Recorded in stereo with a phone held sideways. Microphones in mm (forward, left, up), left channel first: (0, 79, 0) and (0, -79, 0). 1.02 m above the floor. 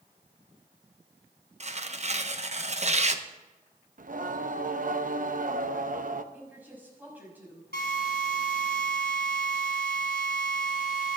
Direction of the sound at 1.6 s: 45° right (ahead or behind).